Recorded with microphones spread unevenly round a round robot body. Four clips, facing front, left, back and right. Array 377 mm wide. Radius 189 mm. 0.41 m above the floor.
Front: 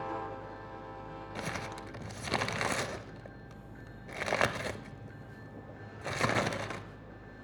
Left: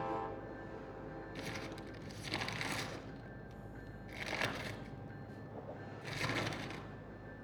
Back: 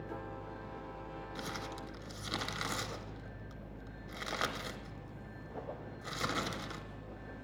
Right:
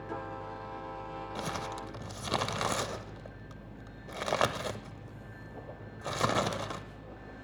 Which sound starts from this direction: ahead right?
Crumpling, at 1.4 s.